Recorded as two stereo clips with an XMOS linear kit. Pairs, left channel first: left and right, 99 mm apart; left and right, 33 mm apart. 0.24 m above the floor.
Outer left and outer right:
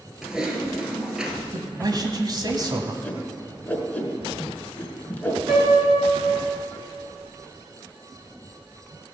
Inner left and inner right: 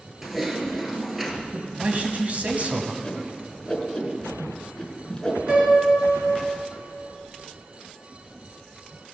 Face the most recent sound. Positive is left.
turn(degrees=-40)  # may be behind; listen again after turning